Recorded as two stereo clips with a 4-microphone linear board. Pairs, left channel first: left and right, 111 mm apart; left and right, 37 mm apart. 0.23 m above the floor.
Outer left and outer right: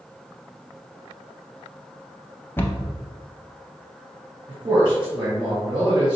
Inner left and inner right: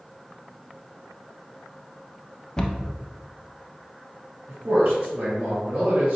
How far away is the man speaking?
About 1.9 m.